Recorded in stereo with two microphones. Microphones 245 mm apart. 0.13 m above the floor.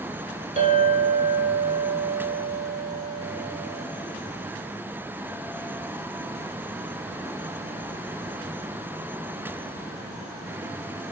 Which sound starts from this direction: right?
A clink, at 0.6 s.